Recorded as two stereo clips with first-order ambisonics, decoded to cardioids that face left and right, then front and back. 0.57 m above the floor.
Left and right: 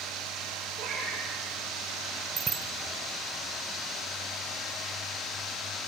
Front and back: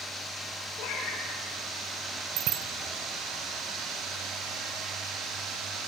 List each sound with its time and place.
0.8 s a cat meowing: 35° right, 6 m
2.4 s a bicycle bell: 155° right, 2 m